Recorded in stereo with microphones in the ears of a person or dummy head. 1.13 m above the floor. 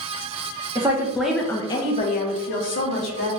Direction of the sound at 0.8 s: 15° right (ahead or behind).